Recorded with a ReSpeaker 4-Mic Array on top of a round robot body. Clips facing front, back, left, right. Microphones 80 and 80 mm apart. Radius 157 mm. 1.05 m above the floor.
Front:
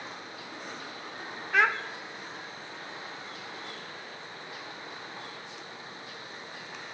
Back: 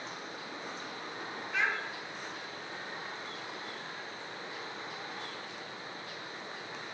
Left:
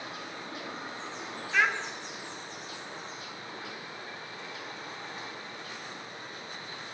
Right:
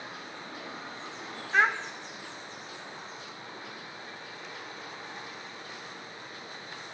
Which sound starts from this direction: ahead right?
A child speaking, at 1.5 s.